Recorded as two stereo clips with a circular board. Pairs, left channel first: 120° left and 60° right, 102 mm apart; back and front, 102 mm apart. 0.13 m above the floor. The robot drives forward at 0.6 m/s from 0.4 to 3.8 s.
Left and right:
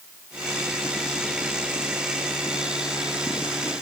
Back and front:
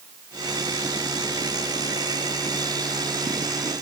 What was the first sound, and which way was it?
Only background noise.